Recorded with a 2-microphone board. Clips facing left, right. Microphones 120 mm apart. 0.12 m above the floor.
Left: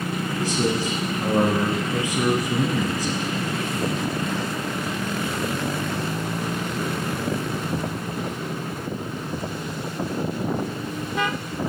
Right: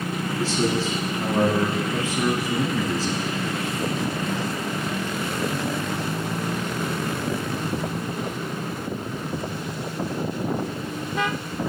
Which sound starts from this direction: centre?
A man speaking, at 0.4 s.